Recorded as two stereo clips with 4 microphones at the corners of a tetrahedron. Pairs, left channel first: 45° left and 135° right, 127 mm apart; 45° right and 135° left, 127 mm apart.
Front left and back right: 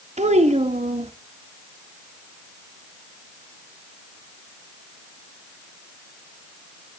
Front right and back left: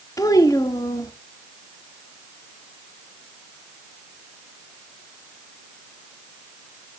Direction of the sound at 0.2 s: 110° right.